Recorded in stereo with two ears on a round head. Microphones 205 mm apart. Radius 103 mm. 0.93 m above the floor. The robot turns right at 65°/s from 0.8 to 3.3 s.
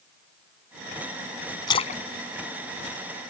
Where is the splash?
20° left (ahead or behind); by 3.3 s 50° left (ahead or behind).